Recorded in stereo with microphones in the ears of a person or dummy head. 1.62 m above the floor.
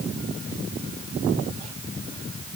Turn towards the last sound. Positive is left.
No sound to turn to.